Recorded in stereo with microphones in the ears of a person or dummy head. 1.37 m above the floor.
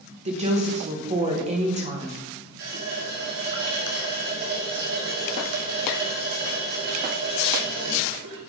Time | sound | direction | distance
0.2 | a woman speaking | 35° right (ahead or behind) | 1.3 m
2.6 | a running tap | 65° right (ahead or behind) | 1.7 m